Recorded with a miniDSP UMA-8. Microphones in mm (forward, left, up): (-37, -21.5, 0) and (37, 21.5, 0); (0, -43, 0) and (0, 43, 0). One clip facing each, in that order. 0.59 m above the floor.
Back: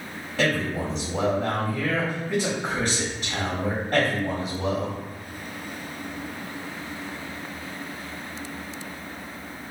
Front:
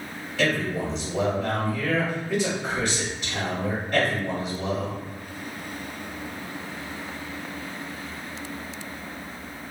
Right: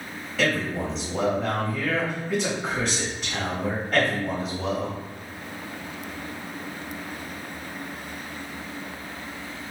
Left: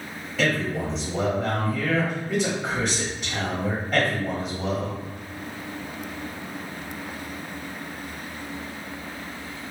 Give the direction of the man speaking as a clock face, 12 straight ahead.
7 o'clock.